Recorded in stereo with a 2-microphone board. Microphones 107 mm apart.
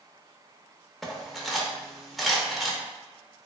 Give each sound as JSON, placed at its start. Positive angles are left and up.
{"t": 1.0, "sound": "cutlery clinking", "side_deg": 0, "distance_m": 0.6}